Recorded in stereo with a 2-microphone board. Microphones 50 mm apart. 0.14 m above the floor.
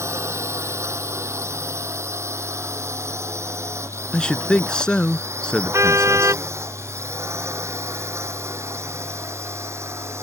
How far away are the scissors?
I don't hear scissors.